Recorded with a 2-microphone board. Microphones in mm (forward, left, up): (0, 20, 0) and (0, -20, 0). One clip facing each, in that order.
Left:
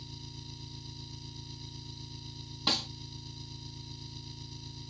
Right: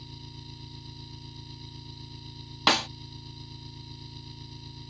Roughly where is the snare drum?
Right.